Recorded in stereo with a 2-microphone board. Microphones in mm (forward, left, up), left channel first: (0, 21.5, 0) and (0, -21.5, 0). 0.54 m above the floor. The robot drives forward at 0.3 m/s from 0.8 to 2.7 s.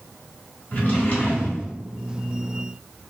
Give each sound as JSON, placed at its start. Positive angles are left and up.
{"t": 0.7, "sound": "a drawer", "side_deg": 45, "distance_m": 1.4}